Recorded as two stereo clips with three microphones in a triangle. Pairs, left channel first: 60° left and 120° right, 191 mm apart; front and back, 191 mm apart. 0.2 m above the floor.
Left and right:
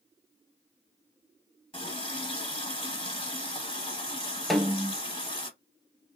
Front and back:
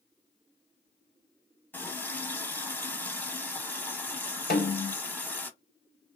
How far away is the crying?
I don't hear crying.